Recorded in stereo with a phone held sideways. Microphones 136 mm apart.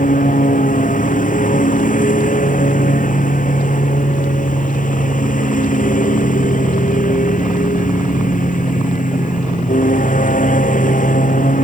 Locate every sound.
0.0 s a lawn mower: 80° left